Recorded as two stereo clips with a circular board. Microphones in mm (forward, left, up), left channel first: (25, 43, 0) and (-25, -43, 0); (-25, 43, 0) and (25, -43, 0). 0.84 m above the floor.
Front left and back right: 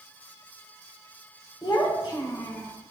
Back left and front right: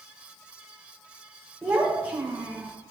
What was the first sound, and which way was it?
A child speaking, 15° left.